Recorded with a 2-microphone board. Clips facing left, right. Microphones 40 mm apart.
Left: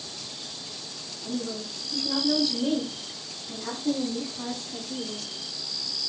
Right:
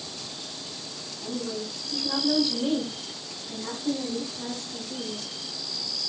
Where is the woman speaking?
40° right (ahead or behind), 1.5 m; by 5.3 s 45° left (ahead or behind), 1.7 m.